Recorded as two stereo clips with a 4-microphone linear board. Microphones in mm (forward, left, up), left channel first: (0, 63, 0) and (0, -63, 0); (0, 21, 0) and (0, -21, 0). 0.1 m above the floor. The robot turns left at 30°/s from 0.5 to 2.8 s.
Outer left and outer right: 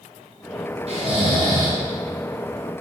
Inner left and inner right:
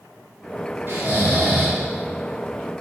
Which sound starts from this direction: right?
Snoring, at 0.9 s.